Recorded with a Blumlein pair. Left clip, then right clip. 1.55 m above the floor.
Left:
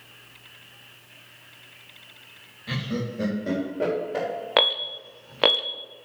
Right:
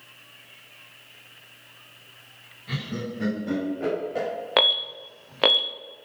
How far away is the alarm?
About 0.6 m.